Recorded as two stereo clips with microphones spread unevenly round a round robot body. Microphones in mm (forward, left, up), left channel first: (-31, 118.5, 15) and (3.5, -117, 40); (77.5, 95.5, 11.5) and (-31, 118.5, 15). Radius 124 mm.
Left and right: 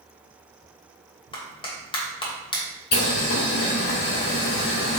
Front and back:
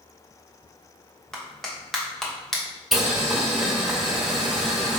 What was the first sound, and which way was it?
A clap, 65° left.